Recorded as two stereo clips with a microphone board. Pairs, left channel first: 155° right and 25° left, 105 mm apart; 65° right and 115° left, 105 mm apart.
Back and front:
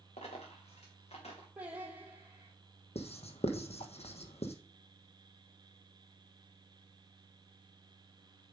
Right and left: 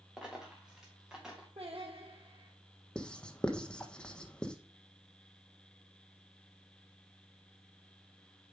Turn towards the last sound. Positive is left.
turn(degrees=-150)